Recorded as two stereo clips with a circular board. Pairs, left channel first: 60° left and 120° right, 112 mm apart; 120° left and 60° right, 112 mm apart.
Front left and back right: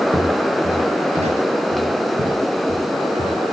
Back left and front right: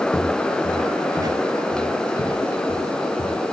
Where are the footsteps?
130° right, 4.5 m; by 3.4 s 95° right, 4 m.